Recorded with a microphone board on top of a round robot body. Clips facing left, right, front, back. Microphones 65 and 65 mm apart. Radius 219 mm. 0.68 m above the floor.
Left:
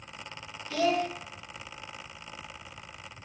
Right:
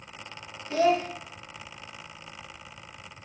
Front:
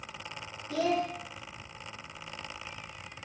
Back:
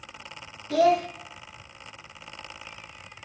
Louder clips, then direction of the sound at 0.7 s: Right 4 dB, back 8 dB; 150° right.